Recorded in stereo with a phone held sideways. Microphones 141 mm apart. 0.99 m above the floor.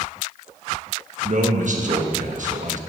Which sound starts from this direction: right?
A man speaking, at 1.2 s.